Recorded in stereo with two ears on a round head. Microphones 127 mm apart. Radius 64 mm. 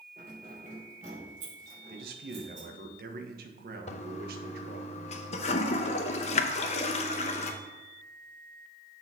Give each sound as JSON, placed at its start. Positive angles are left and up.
{"t": 0.2, "sound": "keys jangling", "side_deg": -60, "distance_m": 3.0}
{"t": 1.9, "sound": "a man speaking", "side_deg": -70, "distance_m": 1.1}
{"t": 3.9, "sound": "a toilet flushing", "side_deg": 50, "distance_m": 0.7}